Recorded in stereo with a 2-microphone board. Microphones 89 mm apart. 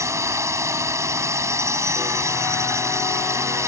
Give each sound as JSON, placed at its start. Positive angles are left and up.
{"t": 0.0, "sound": "a drone", "side_deg": -30}